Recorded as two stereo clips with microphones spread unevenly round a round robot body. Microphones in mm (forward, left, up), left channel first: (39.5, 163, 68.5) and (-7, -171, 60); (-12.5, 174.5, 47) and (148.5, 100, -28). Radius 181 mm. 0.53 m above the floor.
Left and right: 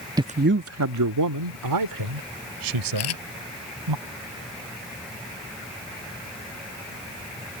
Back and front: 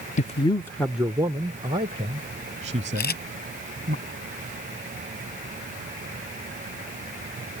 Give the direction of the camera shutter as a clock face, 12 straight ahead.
8 o'clock.